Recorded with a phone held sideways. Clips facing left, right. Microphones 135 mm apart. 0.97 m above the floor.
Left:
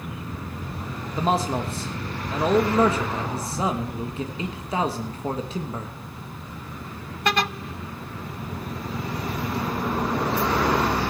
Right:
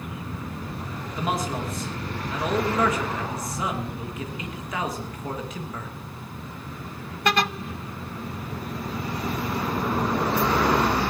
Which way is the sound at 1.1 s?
30° left (ahead or behind).